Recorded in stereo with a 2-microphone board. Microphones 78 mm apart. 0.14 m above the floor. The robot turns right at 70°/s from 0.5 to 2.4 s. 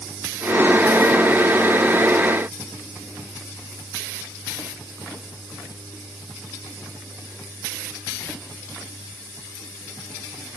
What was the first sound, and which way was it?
Only background noise.